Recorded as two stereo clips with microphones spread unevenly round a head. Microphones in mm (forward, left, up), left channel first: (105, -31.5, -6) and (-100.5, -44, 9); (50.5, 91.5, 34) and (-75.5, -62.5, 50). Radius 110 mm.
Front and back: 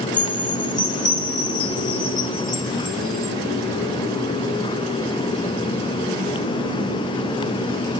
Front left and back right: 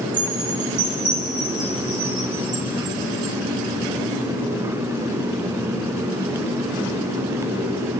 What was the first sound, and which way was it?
A chime, 65° right.